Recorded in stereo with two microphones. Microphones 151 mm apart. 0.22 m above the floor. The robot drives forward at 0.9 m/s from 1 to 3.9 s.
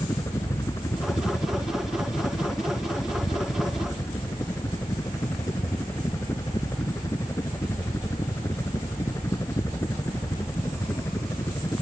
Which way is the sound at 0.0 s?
20° left (ahead or behind).